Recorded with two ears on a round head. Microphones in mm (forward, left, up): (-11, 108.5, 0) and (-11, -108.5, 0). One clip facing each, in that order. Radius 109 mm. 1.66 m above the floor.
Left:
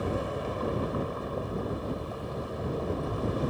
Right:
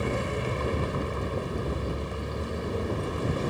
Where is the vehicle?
35° right (ahead or behind).